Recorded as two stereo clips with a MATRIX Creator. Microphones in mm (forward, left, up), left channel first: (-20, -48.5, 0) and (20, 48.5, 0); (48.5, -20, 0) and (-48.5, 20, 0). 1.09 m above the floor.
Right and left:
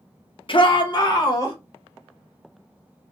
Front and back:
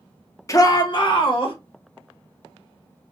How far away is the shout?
About 0.6 m.